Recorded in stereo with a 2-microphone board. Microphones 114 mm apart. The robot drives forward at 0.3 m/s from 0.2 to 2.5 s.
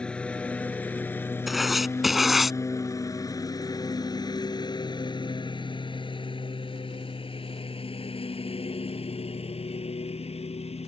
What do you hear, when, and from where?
0.0 s a lawn mower: 10° left (ahead or behind); by 10.9 s 60° left (ahead or behind)
1.5 s writing: centre (ahead or behind)